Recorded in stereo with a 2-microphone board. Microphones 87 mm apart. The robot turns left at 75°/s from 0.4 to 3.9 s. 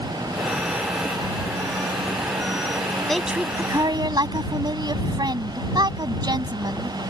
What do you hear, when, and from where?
3.1 s a woman speaking: 5° left; by 7.0 s 55° right